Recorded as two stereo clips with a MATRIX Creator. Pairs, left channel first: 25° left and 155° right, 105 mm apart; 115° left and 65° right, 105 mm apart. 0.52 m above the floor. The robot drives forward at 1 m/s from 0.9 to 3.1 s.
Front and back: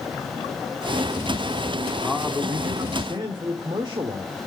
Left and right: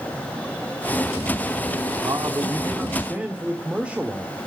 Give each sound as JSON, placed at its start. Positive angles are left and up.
{"t": 2.0, "sound": "a man speaking", "azimuth_deg": -70, "distance_m": 1.2}